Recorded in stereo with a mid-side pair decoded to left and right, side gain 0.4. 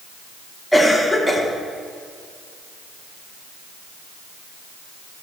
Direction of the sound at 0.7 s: Straight ahead.